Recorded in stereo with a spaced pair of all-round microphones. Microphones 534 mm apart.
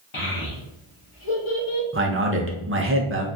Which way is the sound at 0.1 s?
60° left (ahead or behind).